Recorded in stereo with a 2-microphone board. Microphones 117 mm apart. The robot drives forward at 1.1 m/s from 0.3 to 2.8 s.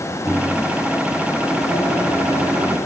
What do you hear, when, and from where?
0.2 s a microwave: centre (ahead or behind), 3.5 m